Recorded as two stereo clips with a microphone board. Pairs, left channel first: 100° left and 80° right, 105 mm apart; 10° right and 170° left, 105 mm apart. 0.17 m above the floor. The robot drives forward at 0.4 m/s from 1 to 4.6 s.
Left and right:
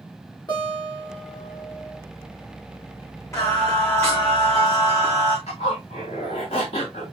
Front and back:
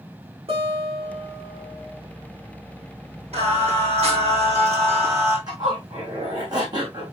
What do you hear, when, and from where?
0.5 s a guitar: 145° left, 4.5 m; by 2.0 s 150° left, 5 m
3.3 s singing: 160° left, 4 m; by 5.4 s 165° left, 4.5 m
5.5 s a zipper: 120° left, 5 m